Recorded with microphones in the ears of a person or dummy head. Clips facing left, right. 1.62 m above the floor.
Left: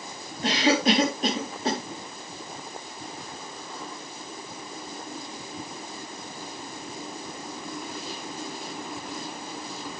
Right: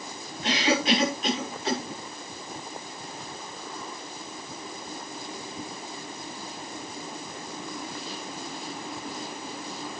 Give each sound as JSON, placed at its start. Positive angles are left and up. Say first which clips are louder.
{"t": 0.4, "sound": "a cough", "louder": "left 3 dB", "side_deg": 40, "distance_m": 3.0}